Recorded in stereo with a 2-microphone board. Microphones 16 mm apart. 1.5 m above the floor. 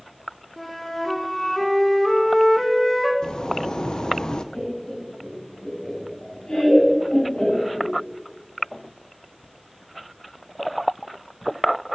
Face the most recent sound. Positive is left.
turn(degrees=75)  # may be behind; listen again after turning